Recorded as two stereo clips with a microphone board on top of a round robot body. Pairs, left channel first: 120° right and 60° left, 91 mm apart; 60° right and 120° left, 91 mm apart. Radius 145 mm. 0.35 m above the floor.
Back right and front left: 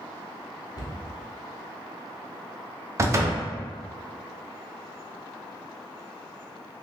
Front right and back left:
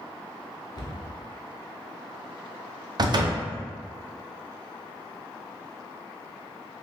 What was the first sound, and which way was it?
A cupboard door, 85° right.